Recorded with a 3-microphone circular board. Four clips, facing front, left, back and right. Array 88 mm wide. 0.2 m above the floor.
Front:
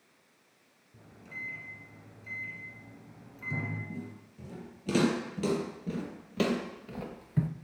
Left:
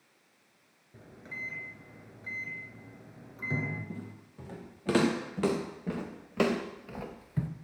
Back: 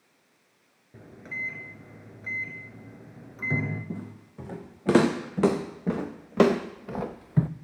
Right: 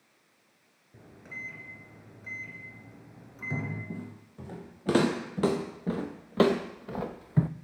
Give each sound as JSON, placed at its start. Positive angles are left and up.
{"t": 0.9, "sound": "a microwave", "azimuth_deg": 180, "distance_m": 2.0}
{"t": 3.9, "sound": "footsteps", "azimuth_deg": -170, "distance_m": 3.0}